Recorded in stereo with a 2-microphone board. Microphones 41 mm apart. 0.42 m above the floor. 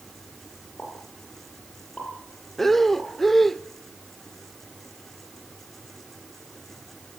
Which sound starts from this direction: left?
A pop, at 0.8 s.